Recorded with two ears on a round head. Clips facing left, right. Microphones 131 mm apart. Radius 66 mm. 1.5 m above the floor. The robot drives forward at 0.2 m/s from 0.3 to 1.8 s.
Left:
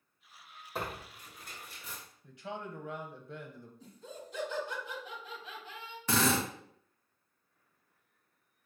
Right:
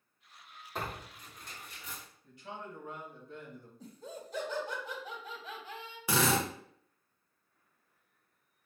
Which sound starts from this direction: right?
Laughter, at 3.8 s.